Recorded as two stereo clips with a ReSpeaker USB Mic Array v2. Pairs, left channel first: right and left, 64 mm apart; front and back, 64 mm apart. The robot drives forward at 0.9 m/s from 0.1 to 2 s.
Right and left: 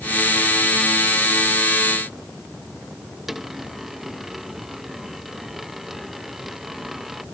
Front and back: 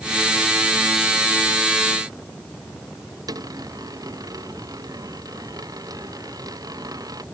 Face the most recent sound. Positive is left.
turn(degrees=175)